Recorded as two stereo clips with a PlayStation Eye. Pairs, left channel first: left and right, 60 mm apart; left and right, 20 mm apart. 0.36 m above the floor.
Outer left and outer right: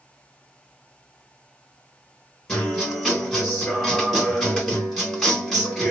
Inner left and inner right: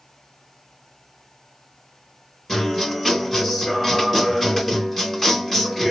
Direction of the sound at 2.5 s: Centre (ahead or behind).